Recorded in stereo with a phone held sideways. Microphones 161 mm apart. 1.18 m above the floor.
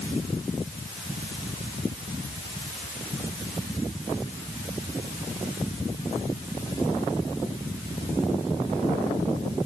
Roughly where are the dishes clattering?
No dishes clattering in this recording.